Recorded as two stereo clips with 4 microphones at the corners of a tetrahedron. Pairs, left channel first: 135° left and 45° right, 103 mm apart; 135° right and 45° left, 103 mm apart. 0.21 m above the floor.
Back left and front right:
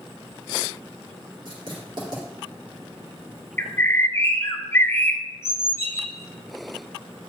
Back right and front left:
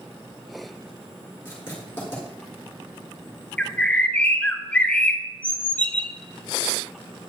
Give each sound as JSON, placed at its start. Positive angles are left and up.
{"t": 1.4, "sound": "writing", "azimuth_deg": -70, "distance_m": 4.0}
{"t": 3.6, "sound": "a bird", "azimuth_deg": 165, "distance_m": 0.7}